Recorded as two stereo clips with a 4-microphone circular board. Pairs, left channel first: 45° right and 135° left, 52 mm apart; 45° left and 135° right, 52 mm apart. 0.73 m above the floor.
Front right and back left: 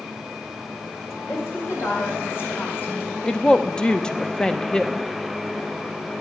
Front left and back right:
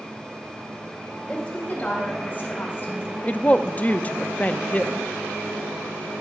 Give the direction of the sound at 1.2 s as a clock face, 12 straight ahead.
1 o'clock.